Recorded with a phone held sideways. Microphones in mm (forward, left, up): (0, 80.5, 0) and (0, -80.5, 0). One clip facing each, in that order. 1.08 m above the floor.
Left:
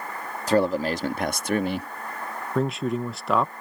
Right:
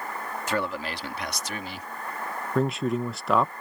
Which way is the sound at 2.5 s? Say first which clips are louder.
Even; centre (ahead or behind).